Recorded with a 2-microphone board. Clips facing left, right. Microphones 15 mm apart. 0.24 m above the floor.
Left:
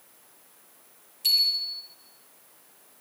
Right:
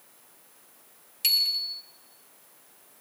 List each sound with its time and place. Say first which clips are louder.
1.2 s a bicycle bell: left 1 dB; 60° right (ahead or behind), 3.5 m